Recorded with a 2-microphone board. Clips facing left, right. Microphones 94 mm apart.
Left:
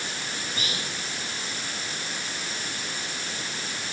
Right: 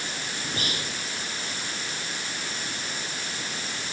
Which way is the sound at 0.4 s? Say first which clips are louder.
Right 3 dB; 45° right (ahead or behind).